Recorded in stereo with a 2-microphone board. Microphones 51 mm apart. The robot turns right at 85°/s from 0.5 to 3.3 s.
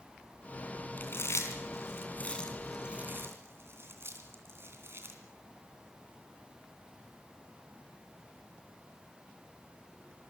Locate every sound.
1.0 s chewing: 35° left (ahead or behind), 3 m; by 5.2 s 55° right (ahead or behind), 3 m